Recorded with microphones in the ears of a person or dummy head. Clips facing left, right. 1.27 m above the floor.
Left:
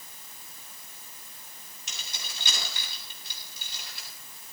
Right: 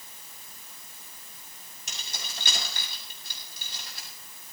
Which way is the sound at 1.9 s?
45° right (ahead or behind).